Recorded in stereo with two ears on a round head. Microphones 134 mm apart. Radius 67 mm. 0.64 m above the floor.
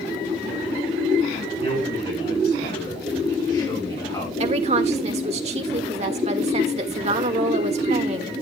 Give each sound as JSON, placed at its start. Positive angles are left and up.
{"t": 1.6, "sound": "a man speaking", "side_deg": 35, "distance_m": 7.0}
{"t": 4.4, "sound": "a woman speaking", "side_deg": -45, "distance_m": 1.5}